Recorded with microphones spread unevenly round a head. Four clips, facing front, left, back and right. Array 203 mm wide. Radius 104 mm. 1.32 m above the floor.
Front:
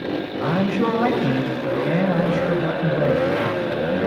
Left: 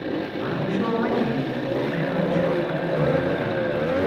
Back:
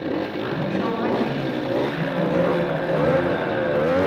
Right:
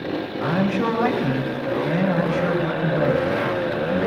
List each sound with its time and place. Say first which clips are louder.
0.4 s a man speaking: right 6 dB, front 4 dB; 25° right, 6.5 m